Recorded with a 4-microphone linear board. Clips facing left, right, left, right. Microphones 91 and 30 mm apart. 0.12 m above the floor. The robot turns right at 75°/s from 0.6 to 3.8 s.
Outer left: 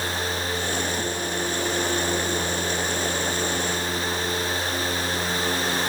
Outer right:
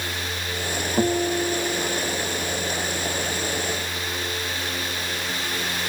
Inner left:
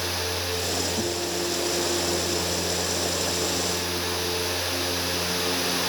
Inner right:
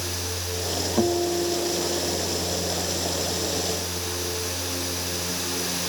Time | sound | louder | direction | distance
1.0 | a guitar | outer right 6 dB, inner right 5 dB | 55° right | ?